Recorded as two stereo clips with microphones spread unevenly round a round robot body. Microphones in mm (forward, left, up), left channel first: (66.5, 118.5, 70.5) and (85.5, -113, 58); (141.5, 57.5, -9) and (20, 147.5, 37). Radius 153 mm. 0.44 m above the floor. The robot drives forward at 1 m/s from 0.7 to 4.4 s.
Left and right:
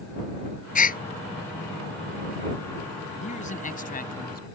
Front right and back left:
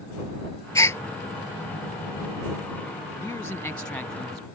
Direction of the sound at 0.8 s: 40° left.